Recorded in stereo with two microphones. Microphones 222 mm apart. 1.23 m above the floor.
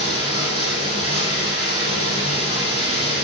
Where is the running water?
50° left (ahead or behind), 8.5 m.